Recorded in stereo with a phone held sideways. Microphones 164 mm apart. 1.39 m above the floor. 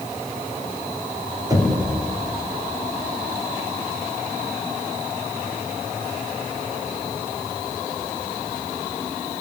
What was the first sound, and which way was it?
Knocking, 25° right (ahead or behind).